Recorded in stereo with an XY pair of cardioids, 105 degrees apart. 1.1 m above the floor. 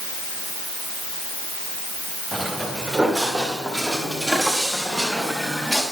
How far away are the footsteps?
About 6 m.